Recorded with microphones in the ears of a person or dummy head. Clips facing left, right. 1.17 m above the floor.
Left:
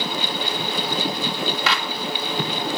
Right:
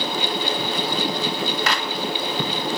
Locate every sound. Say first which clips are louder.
1.7 s a clap: even; 45° right (ahead or behind), 2 m